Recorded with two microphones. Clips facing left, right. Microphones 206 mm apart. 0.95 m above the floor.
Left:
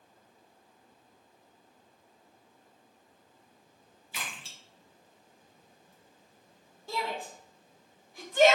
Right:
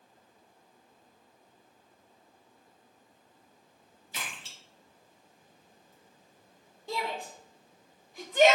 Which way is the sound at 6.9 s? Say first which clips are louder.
Even; 20° right (ahead or behind).